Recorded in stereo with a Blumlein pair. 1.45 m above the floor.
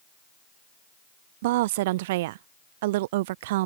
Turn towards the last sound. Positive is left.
turn(degrees=-50)